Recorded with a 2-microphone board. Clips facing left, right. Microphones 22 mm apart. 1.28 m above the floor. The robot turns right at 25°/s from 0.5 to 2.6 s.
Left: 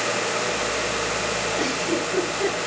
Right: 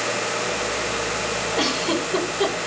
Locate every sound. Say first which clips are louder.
1.6 s a giggle: right 2 dB; 50° right (ahead or behind), 9.5 m; by 2.5 s 75° right (ahead or behind), 9.5 m